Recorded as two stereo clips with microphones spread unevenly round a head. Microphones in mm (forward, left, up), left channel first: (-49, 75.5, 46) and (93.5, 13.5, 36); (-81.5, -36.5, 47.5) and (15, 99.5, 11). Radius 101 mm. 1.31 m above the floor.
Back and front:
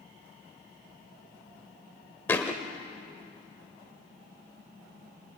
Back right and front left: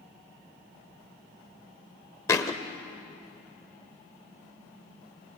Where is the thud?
140° right, 1.1 m.